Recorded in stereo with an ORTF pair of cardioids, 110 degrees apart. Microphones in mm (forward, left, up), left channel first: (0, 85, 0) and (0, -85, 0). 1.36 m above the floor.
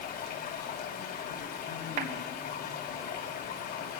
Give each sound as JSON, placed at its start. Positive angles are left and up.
{"t": 0.0, "sound": "running water", "azimuth_deg": 65, "distance_m": 6.0}
{"t": 2.0, "sound": "a clap", "azimuth_deg": -65, "distance_m": 3.5}